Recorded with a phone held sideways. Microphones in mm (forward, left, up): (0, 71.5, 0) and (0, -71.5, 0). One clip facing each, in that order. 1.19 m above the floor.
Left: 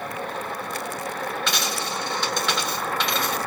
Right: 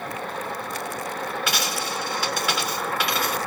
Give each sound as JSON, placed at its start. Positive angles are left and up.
{"t": 1.5, "sound": "a dropped coin", "side_deg": -10, "distance_m": 2.0}